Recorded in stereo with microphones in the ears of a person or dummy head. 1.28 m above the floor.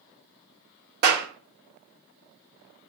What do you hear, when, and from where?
1.0 s a clap: 60° right (ahead or behind), 1.1 m